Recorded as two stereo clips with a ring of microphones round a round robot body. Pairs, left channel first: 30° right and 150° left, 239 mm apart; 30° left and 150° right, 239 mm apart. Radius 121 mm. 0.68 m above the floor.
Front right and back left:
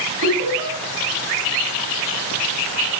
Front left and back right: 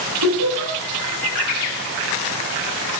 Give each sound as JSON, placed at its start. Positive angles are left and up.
{"t": 0.2, "sound": "laughter", "azimuth_deg": -160, "distance_m": 6.5}